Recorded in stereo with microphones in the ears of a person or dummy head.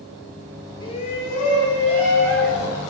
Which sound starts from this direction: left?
A shout, at 0.8 s.